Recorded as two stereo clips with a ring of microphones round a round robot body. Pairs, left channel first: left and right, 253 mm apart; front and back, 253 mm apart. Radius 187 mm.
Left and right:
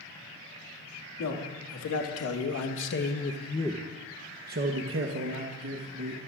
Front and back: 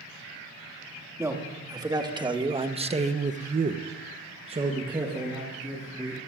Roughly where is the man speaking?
Left.